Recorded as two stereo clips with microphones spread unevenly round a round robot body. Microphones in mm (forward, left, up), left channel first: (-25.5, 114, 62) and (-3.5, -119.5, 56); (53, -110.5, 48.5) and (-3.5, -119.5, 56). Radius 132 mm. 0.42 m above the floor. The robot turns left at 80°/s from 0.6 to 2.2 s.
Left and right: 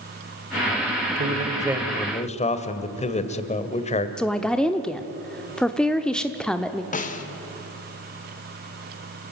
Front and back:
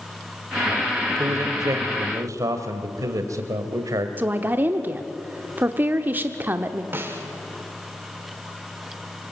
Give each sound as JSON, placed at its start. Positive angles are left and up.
{"t": 1.2, "sound": "a man speaking", "azimuth_deg": -125, "distance_m": 1.8}
{"t": 4.2, "sound": "a woman speaking", "azimuth_deg": 180, "distance_m": 0.9}
{"t": 6.9, "sound": "a snare drum", "azimuth_deg": 140, "distance_m": 1.8}